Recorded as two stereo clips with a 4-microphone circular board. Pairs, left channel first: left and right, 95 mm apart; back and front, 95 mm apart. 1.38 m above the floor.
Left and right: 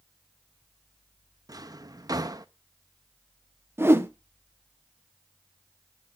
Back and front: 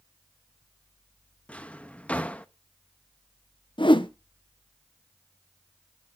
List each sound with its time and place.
1.5 s a drawer: 110° right, 0.8 m
3.8 s a whoosh: 155° right, 1.0 m